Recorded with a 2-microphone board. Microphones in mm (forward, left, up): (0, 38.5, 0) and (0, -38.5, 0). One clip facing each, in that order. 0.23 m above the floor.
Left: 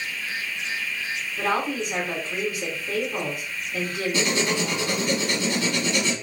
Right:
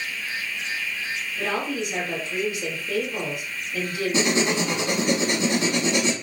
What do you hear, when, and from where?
1.4 s a woman speaking: 45° left (ahead or behind), 2 m
4.1 s writing: 25° right (ahead or behind), 0.8 m